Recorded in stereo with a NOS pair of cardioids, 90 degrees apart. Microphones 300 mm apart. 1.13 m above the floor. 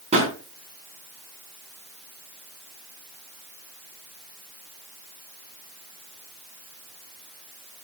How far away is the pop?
About 4 m.